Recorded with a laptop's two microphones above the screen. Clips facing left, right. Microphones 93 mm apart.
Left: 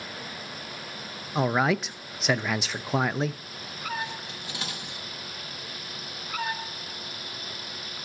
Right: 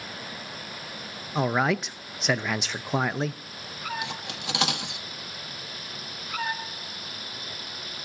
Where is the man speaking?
Centre (ahead or behind), 0.5 m.